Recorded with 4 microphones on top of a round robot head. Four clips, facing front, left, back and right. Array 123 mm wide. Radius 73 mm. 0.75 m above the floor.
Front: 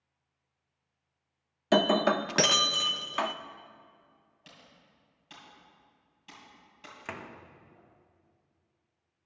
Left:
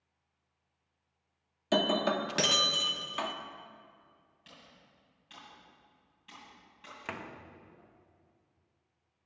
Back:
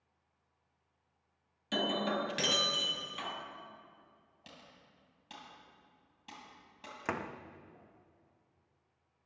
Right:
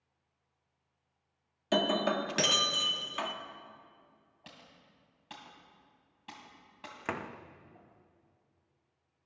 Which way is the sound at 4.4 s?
110° right.